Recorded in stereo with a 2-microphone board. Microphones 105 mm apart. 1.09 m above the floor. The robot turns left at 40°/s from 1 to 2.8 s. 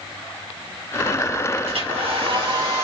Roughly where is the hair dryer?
Right.